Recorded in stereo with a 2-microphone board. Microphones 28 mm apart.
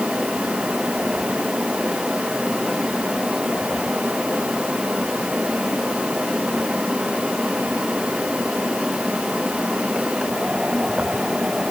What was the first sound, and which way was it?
Only background noise.